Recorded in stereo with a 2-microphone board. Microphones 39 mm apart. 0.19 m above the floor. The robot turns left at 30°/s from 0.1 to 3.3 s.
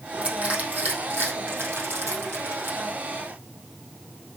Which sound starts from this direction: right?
Crushing, at 0.2 s.